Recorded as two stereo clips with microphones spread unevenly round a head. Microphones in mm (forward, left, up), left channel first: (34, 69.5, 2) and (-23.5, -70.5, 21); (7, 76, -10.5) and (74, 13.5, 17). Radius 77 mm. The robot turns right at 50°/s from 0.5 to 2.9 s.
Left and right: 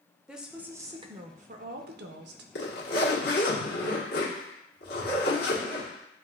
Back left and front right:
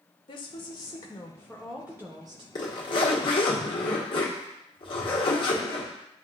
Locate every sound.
0.3 s a woman speaking: 160° left, 0.6 m; by 2.5 s 105° right, 0.6 m
2.5 s a zipper: 85° left, 1.5 m; by 5.9 s 105° left, 1.5 m